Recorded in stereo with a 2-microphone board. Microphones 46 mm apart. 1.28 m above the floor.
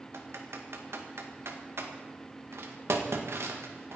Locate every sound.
0.1 s typing on a keyboard: 75° right (ahead or behind), 1.9 m